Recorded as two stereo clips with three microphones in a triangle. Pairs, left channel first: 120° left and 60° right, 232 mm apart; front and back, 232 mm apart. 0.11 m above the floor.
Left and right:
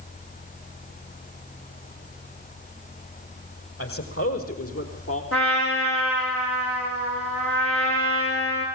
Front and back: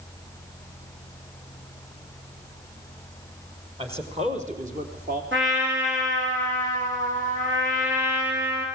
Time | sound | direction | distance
3.8 | a man speaking | 115° left | 5 m
5.3 | a trumpet | 145° left | 7 m